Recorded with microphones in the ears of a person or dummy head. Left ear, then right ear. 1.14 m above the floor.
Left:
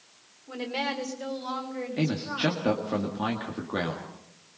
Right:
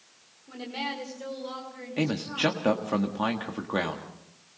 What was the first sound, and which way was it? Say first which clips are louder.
A woman speaking: left 3 dB; 20° left (ahead or behind).